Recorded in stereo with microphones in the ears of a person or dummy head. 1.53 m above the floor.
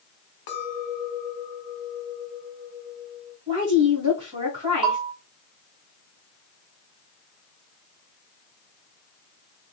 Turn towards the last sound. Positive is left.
turn(degrees=-25)  # may be behind; listen again after turning